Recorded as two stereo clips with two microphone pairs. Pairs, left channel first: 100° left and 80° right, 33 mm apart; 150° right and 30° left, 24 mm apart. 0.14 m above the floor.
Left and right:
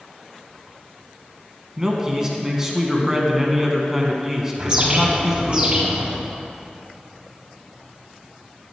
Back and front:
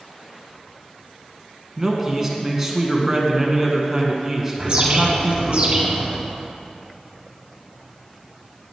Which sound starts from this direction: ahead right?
A man speaking, at 1.8 s.